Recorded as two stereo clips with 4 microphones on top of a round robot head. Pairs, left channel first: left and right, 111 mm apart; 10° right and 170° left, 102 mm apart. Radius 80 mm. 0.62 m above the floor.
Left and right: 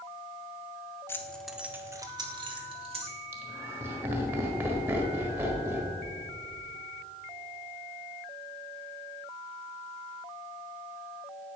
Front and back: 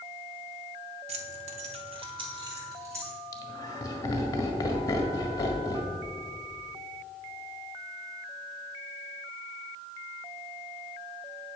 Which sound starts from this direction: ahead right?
Laughter, at 3.3 s.